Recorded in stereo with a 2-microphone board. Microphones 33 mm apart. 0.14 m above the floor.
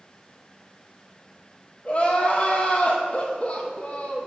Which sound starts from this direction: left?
Crying, at 1.9 s.